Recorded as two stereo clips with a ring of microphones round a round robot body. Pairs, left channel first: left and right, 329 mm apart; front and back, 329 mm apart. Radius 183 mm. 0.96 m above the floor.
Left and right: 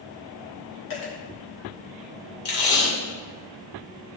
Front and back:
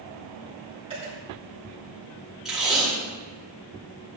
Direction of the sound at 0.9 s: 105° left.